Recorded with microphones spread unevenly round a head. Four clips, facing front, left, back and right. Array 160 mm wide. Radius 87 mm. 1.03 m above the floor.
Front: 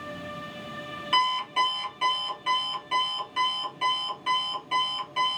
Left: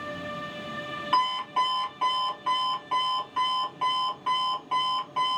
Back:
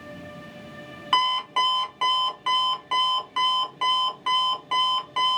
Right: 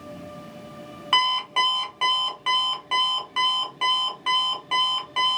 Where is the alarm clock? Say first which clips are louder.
Right 1 dB, back 2 dB; 115° right, 1.8 m.